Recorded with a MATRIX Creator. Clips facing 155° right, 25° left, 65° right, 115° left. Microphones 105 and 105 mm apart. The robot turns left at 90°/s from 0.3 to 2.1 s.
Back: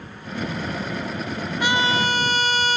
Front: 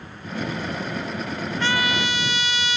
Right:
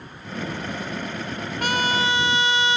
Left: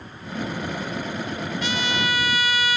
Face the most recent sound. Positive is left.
turn(degrees=-125)